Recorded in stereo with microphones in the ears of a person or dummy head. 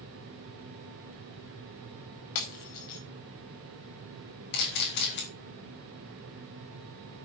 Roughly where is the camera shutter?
Left.